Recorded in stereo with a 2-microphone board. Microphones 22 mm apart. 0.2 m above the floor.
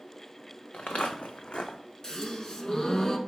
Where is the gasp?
30° left (ahead or behind), 0.7 m.